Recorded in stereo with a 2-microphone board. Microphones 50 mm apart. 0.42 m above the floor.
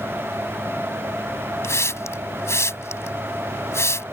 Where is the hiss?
65° left (ahead or behind).